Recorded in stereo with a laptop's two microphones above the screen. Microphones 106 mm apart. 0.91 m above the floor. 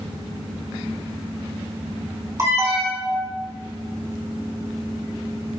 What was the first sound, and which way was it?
An alarm, 30° right (ahead or behind).